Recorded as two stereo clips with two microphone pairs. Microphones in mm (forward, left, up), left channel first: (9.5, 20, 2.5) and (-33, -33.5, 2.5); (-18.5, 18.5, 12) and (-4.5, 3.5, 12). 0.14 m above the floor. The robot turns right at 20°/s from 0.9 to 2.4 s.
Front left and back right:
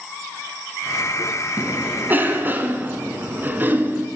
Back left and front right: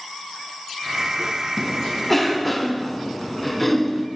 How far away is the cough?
About 1.3 m.